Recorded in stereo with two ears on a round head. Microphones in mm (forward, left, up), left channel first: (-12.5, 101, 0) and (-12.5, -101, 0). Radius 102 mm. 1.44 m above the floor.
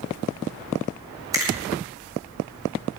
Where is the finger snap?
15° right (ahead or behind), 7.5 m.